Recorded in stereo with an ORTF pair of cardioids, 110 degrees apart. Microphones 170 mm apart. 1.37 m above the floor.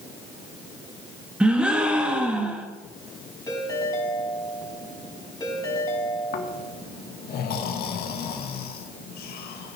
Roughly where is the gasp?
Ahead.